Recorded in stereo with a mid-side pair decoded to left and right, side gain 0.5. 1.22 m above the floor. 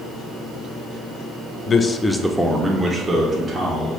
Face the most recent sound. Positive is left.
turn(degrees=-45)